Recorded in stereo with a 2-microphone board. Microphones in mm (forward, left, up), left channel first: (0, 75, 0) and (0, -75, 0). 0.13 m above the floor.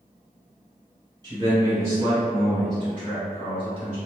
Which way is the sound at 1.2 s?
30° right (ahead or behind).